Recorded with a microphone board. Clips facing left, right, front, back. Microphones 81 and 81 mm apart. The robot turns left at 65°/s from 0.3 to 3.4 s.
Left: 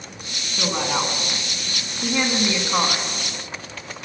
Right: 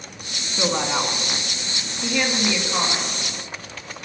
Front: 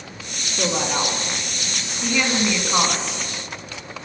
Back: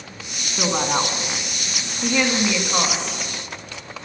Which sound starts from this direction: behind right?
A woman speaking, at 0.6 s.